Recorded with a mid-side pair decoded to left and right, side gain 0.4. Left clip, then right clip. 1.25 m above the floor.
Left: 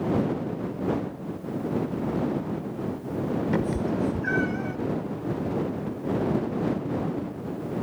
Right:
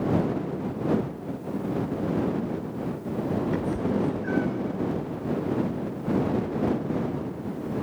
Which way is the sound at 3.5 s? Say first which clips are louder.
Even; 45° left.